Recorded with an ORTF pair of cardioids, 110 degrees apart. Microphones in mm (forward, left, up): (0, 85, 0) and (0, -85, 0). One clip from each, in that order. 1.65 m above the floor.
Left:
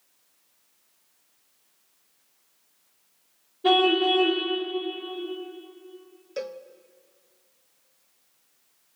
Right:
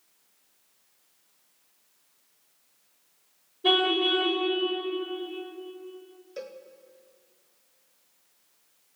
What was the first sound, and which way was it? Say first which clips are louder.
A car horn: left 3 dB; 5° left.